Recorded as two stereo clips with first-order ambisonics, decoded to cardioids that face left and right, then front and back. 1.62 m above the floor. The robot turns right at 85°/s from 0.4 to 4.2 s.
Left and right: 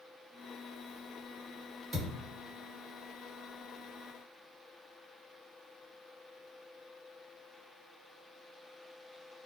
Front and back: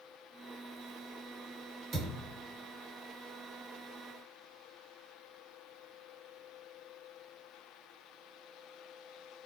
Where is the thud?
150° right, 1.9 m; by 2.3 s 120° right, 1.9 m.